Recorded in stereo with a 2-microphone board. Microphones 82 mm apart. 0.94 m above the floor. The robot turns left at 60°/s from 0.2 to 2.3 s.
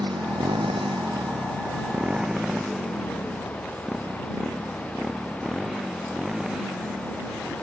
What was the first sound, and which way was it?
A motorcycle, 55° right (ahead or behind).